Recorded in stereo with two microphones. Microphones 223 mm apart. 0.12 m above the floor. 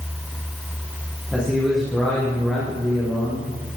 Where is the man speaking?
5° right (ahead or behind), 7.5 m; by 3.8 s 5° left (ahead or behind), 5 m.